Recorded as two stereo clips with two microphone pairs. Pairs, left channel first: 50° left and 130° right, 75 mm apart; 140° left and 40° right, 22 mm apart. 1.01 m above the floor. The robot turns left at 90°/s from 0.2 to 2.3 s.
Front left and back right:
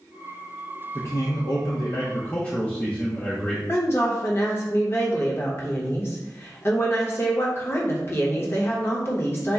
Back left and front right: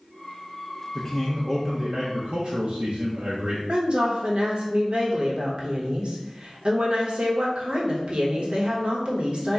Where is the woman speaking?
5° right, 1.0 m.